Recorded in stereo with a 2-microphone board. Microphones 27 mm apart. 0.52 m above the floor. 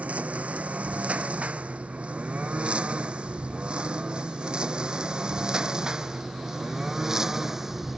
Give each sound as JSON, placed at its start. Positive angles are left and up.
{"t": 0.0, "sound": "a lawn mower", "side_deg": -55}